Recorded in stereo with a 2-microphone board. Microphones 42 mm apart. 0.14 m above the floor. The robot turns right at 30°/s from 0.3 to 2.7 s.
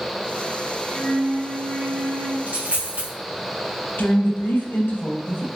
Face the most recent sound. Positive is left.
turn(degrees=65)  # may be behind; listen again after turning